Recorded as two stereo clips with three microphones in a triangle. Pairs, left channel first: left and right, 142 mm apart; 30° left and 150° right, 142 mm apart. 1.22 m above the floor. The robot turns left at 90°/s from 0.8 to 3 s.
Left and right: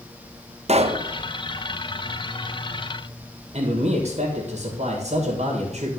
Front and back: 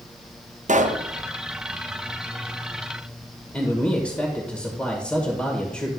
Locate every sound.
0.7 s a pop: 130° right, 0.6 m; by 1.0 s 150° right, 0.6 m
3.5 s a man speaking: 50° right, 1.5 m